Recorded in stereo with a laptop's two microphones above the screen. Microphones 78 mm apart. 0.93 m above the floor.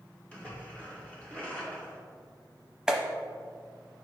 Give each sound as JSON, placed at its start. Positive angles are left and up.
{"t": 0.3, "sound": "a splash", "side_deg": 15, "distance_m": 2.5}
{"t": 2.9, "sound": "a clap", "side_deg": -5, "distance_m": 0.7}